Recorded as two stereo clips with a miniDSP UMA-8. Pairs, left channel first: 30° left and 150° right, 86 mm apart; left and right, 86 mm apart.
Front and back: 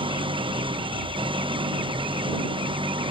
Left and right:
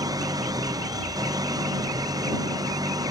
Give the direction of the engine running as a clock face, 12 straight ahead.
4 o'clock.